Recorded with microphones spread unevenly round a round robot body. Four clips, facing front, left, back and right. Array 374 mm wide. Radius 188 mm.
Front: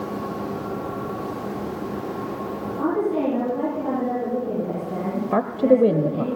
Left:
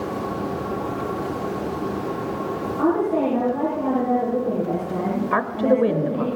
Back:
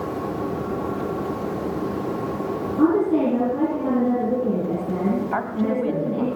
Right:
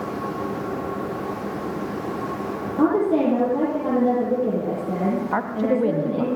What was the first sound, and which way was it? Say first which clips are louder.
A woman speaking: right 2 dB, back 4 dB; 140° right.